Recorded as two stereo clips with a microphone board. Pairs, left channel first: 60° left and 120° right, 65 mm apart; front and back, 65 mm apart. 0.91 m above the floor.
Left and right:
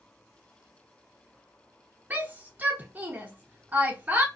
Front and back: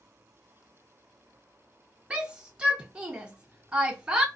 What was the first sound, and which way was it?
A shout, 125° right.